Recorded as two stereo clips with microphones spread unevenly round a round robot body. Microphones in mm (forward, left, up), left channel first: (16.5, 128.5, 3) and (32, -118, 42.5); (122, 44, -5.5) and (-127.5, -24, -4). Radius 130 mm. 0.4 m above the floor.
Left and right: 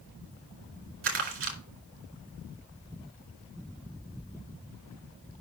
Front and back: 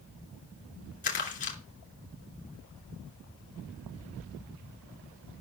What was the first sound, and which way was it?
Crumpling, 45° right.